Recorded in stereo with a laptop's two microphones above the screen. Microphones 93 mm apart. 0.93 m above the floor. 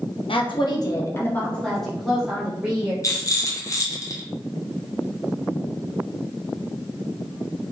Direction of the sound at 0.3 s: 70° left (ahead or behind).